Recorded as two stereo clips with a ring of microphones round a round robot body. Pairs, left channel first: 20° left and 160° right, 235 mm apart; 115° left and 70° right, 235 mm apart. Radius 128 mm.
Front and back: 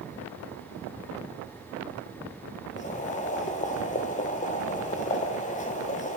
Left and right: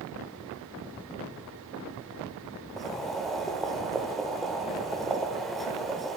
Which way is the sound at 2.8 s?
25° left.